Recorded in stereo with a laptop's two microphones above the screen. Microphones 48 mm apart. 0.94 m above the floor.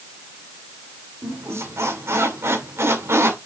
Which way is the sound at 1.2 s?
75° right (ahead or behind).